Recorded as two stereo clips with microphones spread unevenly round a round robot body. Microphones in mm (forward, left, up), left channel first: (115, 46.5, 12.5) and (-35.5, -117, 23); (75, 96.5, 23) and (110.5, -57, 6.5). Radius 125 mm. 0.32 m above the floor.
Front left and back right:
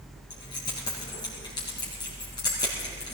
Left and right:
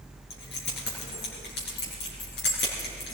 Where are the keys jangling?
120° left, 4 m.